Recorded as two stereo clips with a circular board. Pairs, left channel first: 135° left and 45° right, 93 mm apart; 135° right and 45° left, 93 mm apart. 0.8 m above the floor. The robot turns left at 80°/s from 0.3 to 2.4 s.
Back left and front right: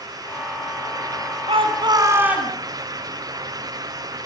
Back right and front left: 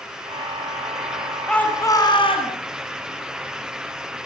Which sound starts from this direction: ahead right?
A shout, at 1.5 s.